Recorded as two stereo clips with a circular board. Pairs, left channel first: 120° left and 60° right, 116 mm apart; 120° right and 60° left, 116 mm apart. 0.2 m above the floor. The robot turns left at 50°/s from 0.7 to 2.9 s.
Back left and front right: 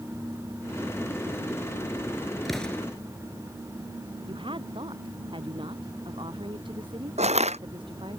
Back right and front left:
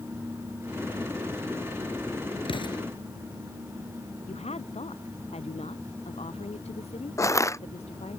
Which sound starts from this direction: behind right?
An explosion, at 2.5 s.